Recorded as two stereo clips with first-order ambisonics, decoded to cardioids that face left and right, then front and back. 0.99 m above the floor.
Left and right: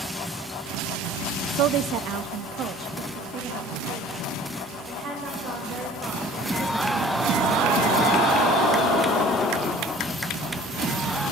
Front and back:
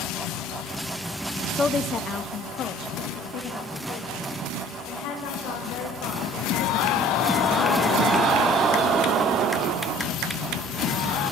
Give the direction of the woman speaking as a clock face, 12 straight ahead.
3 o'clock.